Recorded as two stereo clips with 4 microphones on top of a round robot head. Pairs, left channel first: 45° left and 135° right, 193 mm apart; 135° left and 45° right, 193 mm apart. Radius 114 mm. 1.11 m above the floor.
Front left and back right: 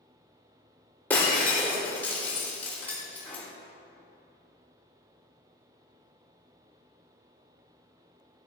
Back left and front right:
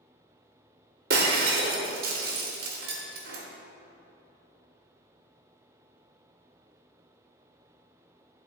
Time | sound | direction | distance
1.1 | breaking glass | 30° right | 0.8 m